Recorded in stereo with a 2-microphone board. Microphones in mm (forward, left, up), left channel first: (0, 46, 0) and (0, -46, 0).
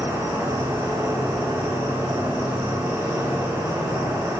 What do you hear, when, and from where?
0.0 s an insect: 25° right (ahead or behind), 3 m